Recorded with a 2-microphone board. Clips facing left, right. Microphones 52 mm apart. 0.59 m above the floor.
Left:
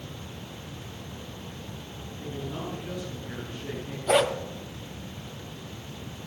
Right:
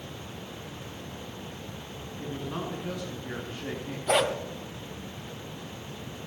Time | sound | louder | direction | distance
2.2 | a man speaking | right 1 dB | 75° right (ahead or behind) | 7.5 m
4.1 | a dog barking | left 2 dB | 5° left (ahead or behind) | 1.5 m